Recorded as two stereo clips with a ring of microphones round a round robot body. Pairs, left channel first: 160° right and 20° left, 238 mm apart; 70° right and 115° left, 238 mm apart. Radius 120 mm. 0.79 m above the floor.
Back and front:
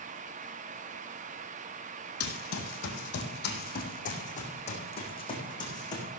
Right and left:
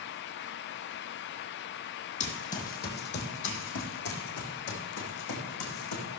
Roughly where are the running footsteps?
Behind right.